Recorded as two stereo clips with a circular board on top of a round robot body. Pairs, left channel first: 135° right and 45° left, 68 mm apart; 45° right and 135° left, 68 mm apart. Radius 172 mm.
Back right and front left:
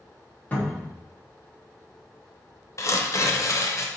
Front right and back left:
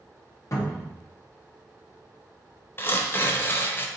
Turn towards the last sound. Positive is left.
turn(degrees=-100)